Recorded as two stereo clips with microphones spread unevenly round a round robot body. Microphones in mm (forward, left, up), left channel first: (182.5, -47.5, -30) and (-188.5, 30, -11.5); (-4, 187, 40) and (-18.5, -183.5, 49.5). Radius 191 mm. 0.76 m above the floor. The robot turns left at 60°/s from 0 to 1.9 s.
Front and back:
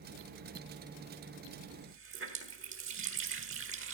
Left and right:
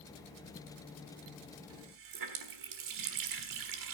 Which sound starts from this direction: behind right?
A running tap, at 1.7 s.